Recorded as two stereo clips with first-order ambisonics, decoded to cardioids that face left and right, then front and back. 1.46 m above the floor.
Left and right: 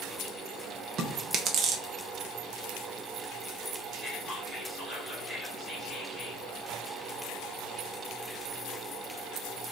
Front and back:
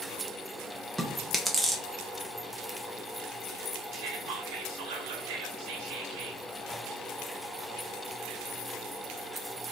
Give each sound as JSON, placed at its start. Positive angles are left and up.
{"t": 1.0, "sound": "chewing", "azimuth_deg": -100, "distance_m": 0.6}
{"t": 3.9, "sound": "whispering", "azimuth_deg": 180, "distance_m": 1.2}